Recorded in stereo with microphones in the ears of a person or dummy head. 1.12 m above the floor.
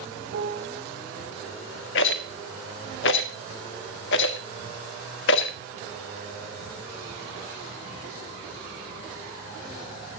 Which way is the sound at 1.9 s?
65° left (ahead or behind).